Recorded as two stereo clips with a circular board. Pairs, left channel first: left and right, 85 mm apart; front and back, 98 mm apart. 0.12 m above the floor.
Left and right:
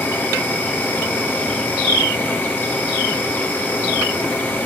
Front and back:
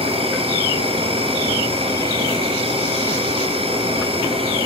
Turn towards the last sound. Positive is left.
turn(degrees=160)